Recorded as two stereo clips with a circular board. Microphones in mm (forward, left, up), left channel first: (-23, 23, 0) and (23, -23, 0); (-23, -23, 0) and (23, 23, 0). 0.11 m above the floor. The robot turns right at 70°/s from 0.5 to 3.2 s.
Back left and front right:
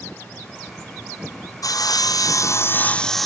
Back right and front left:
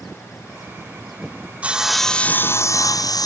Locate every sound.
1.6 s sawing: 115° left, 0.7 m; by 3.3 s 135° right, 0.7 m